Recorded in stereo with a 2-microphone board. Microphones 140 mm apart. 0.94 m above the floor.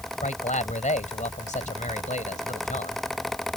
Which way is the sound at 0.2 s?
60° left (ahead or behind).